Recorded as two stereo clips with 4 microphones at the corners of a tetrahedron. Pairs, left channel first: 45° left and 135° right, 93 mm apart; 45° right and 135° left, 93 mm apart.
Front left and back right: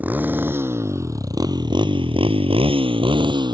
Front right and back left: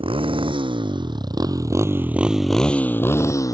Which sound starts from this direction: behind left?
A motorcycle, at 0.0 s.